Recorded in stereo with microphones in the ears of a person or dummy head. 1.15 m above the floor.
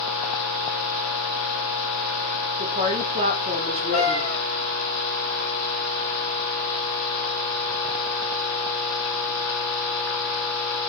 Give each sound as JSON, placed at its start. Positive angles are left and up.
{"t": 2.6, "sound": "a woman speaking", "side_deg": -30, "distance_m": 0.6}
{"t": 3.9, "sound": "a cat meowing", "side_deg": -10, "distance_m": 1.4}